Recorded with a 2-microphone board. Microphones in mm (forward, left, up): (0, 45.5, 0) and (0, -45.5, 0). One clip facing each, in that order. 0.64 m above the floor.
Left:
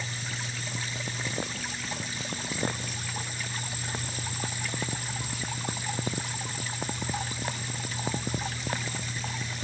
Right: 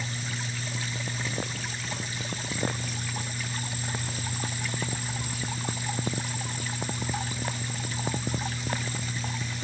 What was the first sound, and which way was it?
Only background noise.